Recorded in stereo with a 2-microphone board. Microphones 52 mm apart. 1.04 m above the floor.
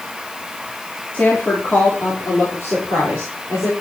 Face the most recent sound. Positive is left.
turn(degrees=65)  # may be behind; listen again after turning